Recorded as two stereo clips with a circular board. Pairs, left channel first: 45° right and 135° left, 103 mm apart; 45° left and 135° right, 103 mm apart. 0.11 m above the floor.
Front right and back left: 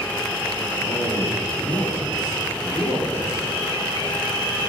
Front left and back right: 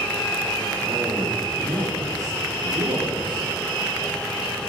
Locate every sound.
0.8 s a man speaking: 75° right, 3.5 m; by 3.5 s 105° right, 3 m